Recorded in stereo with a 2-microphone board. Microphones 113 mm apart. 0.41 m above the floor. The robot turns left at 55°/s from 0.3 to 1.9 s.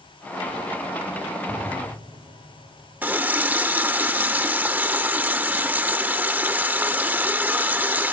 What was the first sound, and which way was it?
An explosion, 80° right.